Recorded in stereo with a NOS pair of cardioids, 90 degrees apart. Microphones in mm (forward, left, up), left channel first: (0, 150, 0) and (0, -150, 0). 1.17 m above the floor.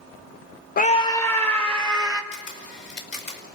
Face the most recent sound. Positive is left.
turn(degrees=40)